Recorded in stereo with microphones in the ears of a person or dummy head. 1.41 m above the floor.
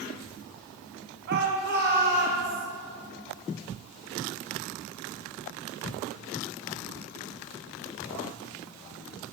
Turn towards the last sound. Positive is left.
turn(degrees=-60)  # may be behind; listen again after turning